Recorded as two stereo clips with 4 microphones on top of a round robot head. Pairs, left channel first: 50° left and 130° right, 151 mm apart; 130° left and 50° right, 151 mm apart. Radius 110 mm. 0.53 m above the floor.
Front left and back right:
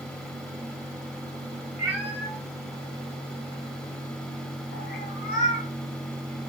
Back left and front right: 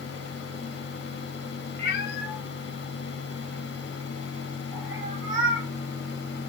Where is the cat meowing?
150° left, 1.5 m; by 5.7 s 15° left, 2.5 m.